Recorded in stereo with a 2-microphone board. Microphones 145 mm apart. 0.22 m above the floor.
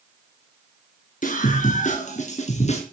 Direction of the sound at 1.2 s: 65° left (ahead or behind).